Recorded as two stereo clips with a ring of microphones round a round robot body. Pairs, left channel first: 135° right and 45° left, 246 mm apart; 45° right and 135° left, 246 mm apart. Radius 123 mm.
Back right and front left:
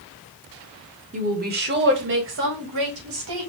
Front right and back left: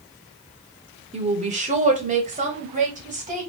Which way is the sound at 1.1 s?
85° left.